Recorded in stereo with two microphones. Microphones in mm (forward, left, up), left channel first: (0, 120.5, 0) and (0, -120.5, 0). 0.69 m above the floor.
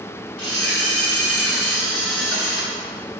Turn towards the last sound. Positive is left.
turn(degrees=65)  # may be behind; listen again after turning